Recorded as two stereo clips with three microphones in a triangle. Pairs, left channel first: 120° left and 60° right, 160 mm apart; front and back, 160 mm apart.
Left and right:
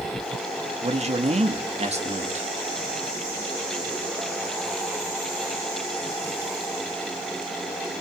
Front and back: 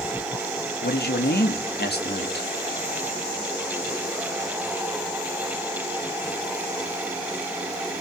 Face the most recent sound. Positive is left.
turn(degrees=-10)